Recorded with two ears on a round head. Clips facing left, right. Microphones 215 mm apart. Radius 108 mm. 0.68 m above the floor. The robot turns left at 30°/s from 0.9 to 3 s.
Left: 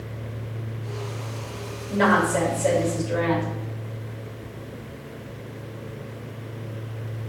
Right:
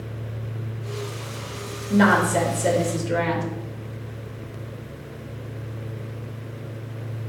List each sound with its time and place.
1.9 s a woman speaking: 70° right, 3 m; by 3.5 s 105° right, 3 m